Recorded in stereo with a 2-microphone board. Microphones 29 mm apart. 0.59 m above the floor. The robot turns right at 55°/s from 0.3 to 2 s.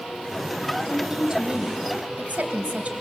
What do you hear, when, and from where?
0.9 s a woman speaking: 175° right, 2.5 m; by 2.9 s 115° right, 2.5 m